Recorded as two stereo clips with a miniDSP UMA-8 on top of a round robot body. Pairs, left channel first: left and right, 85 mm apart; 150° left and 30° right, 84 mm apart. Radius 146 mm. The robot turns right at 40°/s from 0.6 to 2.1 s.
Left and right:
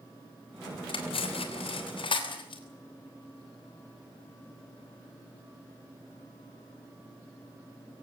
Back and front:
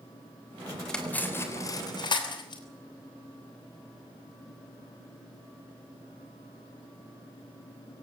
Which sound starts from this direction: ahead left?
Cutlery clinking, at 0.9 s.